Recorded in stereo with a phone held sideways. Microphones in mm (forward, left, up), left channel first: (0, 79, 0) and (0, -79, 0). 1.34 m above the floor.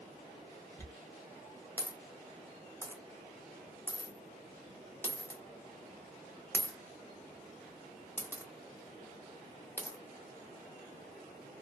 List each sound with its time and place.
0.8 s a dropped coin: 15° left (ahead or behind), 0.9 m